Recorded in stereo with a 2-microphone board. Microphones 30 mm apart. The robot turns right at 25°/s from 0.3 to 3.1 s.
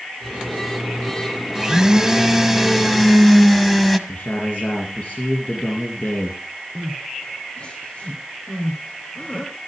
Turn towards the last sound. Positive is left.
turn(degrees=35)  # may be behind; listen again after turning